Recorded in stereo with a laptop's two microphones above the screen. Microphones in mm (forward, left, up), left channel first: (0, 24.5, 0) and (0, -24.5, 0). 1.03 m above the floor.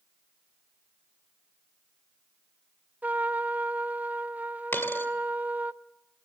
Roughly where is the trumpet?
Right.